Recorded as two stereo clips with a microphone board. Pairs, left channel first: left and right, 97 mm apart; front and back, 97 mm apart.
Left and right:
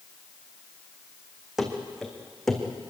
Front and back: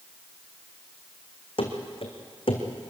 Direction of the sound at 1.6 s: 5° right.